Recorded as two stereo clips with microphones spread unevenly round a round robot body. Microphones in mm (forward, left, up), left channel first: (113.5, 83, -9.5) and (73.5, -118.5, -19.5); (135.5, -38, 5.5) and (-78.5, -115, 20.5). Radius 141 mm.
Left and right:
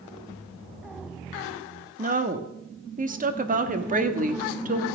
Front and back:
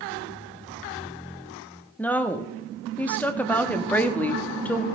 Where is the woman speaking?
60° right, 1.5 m.